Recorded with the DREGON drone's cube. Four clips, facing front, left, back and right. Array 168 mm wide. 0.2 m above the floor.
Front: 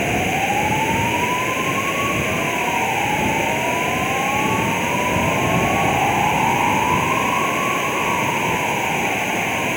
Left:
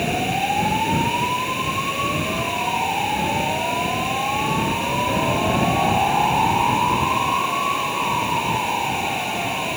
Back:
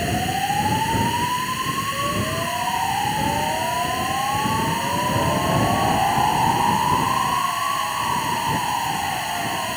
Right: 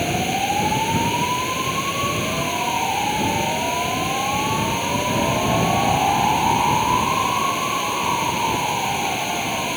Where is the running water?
5° right.